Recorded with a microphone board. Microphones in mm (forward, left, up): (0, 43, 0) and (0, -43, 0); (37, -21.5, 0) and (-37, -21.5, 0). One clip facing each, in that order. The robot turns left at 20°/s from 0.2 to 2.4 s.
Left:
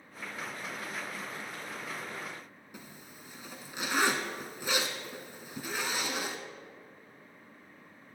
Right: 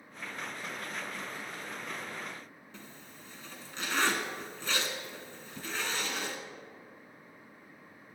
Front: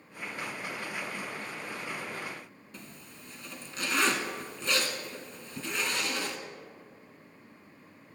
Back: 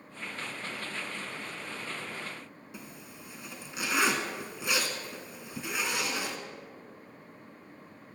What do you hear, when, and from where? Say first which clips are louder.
2.7 s a zipper: left 2 dB, back 2 dB; 135° left, 1.0 m